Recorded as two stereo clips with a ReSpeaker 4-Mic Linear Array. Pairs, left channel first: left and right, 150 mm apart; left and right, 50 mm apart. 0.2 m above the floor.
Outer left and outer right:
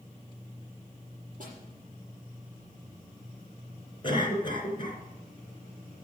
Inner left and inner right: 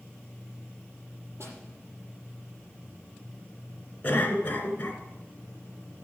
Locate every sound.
1.4 s a snare drum: 60° right (ahead or behind), 6.5 m
4.0 s a cough: 35° left (ahead or behind), 2.5 m